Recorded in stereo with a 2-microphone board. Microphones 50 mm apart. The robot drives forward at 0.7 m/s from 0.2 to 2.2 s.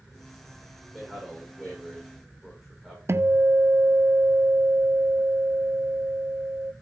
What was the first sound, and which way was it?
A man speaking, 5° right (ahead or behind).